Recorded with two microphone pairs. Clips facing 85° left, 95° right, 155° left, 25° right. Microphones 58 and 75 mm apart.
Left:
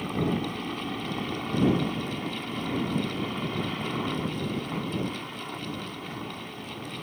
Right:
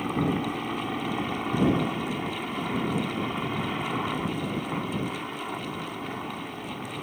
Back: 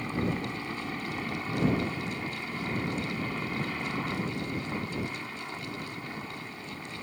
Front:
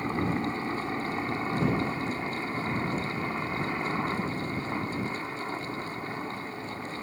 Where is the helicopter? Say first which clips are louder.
Right 2 dB, front 3 dB; 50° right.